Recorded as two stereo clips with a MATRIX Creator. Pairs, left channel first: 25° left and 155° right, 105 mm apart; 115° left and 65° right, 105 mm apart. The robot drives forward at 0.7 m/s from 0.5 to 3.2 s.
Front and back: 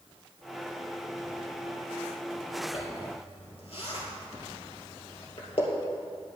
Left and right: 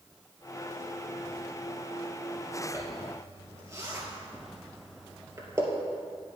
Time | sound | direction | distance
2.7 | a zipper | 5° right | 3 m